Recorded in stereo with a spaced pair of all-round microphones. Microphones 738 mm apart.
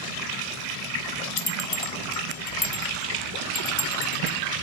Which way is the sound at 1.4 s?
30° left (ahead or behind).